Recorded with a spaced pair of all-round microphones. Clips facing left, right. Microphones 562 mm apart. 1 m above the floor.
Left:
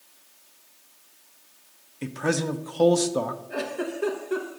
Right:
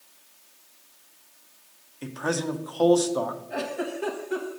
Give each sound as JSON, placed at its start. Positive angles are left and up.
{"t": 2.0, "sound": "a man speaking", "side_deg": 50, "distance_m": 0.6}
{"t": 3.5, "sound": "a giggle", "side_deg": -10, "distance_m": 1.0}